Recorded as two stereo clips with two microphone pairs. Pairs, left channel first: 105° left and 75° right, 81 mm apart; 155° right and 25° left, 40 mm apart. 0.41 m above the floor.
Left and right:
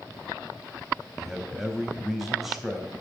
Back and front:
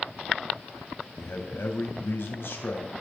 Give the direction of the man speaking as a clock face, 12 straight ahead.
5 o'clock.